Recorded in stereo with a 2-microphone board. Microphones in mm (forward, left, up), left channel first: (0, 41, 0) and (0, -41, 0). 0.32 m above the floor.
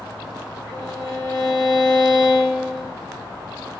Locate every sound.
0.7 s a violin: 45° left (ahead or behind), 2.5 m